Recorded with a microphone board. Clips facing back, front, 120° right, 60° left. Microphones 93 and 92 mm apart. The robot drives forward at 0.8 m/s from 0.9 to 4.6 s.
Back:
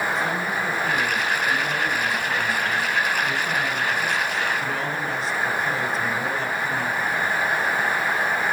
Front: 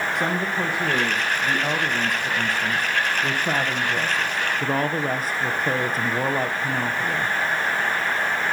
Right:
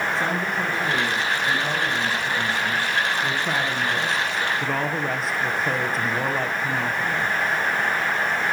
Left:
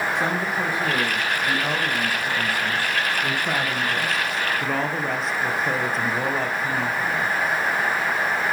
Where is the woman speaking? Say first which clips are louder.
Front 1 dB, left 1 dB; 15° right, 6 m; by 7.3 s 30° right, 3 m.